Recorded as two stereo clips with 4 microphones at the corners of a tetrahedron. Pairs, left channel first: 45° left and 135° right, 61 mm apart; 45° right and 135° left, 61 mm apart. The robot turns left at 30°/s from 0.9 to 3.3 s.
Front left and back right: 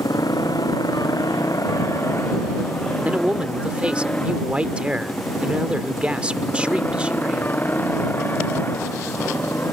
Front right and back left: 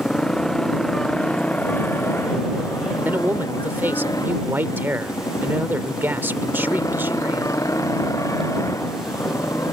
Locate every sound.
0.0 s a motorcycle: 35° left; by 9.7 s 10° right
3.0 s a man speaking: 170° left; by 7.6 s 165° left